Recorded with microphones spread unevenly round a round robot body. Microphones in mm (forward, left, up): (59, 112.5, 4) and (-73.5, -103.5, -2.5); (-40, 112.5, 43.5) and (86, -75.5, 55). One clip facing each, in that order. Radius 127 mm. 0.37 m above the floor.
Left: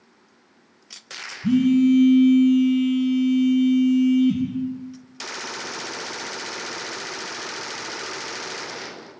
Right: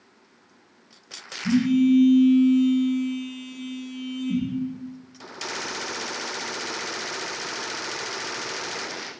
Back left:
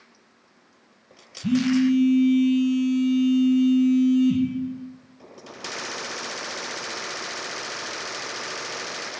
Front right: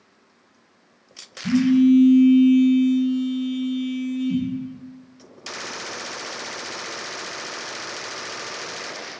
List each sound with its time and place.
1.4 s a phone buzzing: 95° left, 1.4 m